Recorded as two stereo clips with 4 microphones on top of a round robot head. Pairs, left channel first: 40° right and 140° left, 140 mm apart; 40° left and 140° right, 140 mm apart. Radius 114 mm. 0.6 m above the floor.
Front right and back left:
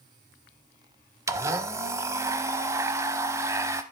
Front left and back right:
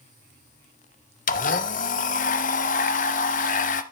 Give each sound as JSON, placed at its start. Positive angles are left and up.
{"t": 1.3, "sound": "a blender", "azimuth_deg": 70, "distance_m": 0.6}